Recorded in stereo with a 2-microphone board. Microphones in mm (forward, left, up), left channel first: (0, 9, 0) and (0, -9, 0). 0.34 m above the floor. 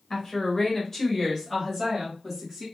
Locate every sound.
0.1 s a woman speaking: 40° left (ahead or behind), 1.2 m; by 2.7 s centre (ahead or behind), 1.9 m